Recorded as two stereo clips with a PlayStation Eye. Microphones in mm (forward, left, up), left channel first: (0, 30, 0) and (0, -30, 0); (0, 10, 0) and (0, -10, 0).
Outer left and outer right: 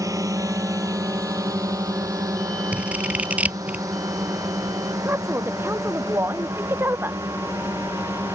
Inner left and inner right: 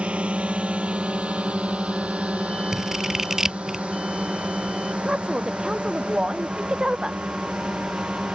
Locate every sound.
0.0 s a drone: 75° right (ahead or behind); by 8.3 s 85° right
2.7 s scissors: 25° right (ahead or behind)
5.0 s a woman speaking: 40° right (ahead or behind)